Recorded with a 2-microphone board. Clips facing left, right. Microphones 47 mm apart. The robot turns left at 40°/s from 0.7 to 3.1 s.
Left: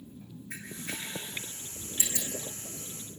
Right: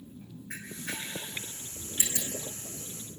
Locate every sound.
0.5 s a camera shutter: 75° right (ahead or behind), 7.5 m; by 2.3 s 10° right (ahead or behind), 7.5 m